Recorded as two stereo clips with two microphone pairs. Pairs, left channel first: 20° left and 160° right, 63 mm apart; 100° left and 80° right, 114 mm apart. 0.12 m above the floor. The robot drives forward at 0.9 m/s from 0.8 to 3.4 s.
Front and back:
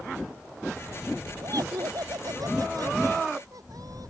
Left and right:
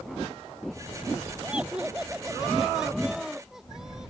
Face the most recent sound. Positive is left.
turn(degrees=-165)